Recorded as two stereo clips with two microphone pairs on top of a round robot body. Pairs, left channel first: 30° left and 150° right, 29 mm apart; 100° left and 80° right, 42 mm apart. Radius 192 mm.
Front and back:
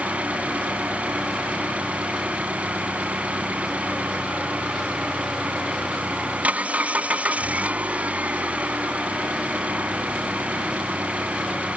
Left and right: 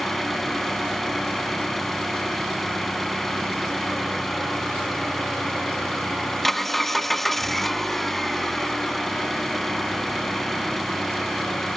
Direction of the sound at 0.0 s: 175° right.